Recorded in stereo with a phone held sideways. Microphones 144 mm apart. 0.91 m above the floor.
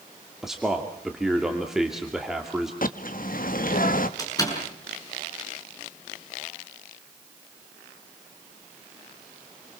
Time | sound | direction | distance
0.4 | a man speaking | 5° right (ahead or behind) | 2.5 m
2.8 | a bird | 65° left (ahead or behind) | 1.2 m
4.2 | a door slam | 25° left (ahead or behind) | 7.5 m